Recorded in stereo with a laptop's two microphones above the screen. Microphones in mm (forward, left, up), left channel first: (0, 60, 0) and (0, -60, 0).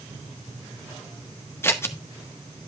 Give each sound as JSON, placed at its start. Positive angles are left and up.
{"t": 1.6, "sound": "scissors", "side_deg": 20, "distance_m": 0.7}